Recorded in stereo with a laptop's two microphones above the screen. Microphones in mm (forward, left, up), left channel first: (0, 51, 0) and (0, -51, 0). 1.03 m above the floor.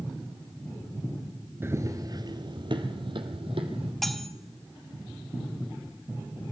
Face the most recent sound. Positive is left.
turn(degrees=0)  # may be behind; listen again after turning